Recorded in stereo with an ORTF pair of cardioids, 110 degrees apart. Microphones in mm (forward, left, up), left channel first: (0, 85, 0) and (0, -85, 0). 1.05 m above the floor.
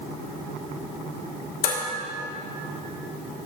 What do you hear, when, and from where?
1.6 s dishes clattering: 60° left, 2.5 m